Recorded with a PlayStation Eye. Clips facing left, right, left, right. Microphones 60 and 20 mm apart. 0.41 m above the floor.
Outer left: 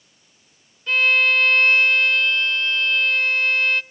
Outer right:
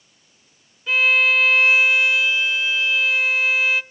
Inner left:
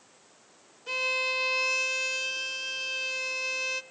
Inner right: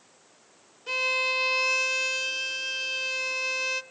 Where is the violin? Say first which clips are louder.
Outer right 1 dB, inner right 2 dB; 5° right (ahead or behind), 0.6 m.